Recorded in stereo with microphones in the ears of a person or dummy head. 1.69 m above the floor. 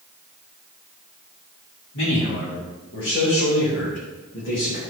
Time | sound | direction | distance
1.9 | a man speaking | 75° left (ahead or behind) | 3.5 m